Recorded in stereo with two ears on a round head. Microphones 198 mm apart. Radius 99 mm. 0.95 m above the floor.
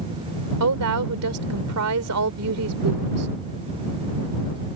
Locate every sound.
0.6 s a woman speaking: 80° right